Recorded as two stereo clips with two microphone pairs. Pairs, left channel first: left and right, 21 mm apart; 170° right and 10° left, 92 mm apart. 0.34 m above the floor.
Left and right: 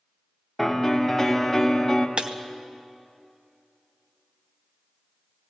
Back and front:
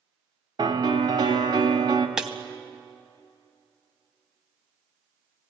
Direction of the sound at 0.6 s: 5° left.